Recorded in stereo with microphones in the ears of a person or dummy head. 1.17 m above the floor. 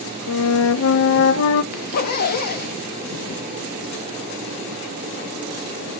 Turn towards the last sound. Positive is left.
turn(degrees=55)  # may be behind; listen again after turning